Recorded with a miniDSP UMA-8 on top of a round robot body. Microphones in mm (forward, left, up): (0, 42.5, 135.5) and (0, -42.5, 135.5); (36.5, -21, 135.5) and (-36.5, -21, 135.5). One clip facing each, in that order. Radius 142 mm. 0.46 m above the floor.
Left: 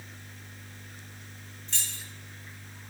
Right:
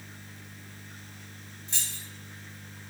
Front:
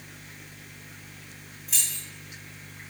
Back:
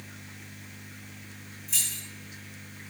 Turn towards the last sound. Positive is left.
turn(degrees=-20)